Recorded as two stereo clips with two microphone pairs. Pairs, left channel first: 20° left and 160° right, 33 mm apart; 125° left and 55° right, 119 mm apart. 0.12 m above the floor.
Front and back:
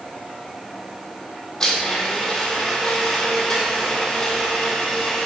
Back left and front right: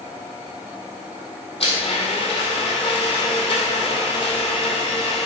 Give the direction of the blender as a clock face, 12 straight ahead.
9 o'clock.